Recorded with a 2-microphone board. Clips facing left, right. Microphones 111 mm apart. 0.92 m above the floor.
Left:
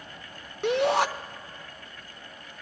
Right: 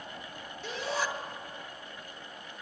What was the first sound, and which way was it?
A shout, 70° left (ahead or behind).